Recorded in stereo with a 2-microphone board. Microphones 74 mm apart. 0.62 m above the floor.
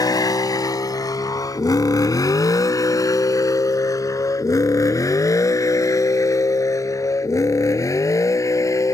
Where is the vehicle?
60° left (ahead or behind); by 8.9 s 45° left (ahead or behind).